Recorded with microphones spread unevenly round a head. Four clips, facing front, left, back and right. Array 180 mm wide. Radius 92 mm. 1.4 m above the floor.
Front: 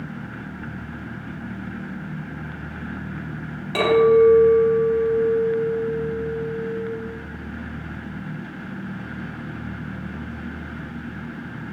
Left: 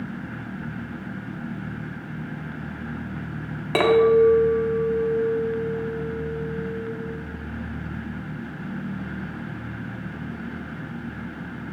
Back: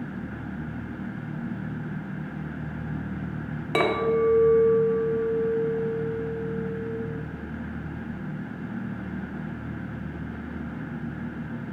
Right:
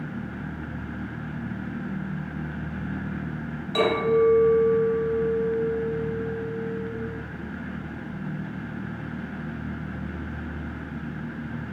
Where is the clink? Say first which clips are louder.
Left 5 dB, front 8 dB; 110° left, 1.2 m.